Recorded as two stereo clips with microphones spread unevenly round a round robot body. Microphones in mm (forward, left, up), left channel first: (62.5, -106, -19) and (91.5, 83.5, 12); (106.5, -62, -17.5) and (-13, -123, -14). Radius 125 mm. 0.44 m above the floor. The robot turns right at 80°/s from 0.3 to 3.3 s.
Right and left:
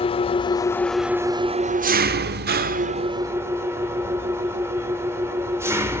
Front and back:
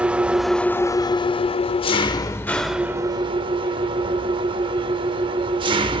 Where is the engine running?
75° right, 0.7 m; by 6.0 s 165° left, 0.7 m.